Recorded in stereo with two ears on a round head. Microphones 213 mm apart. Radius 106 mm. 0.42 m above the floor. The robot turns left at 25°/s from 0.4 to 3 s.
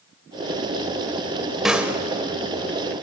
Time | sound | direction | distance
1.6 | a snare drum | centre (ahead or behind) | 1.2 m